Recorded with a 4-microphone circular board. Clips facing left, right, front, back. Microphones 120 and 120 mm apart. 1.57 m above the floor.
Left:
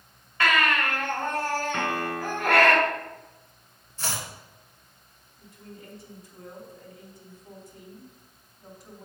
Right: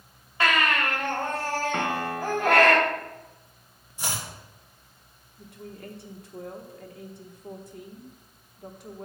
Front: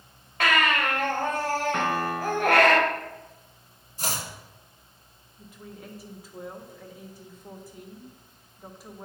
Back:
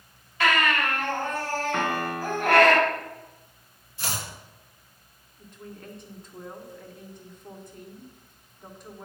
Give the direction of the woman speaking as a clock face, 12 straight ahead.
3 o'clock.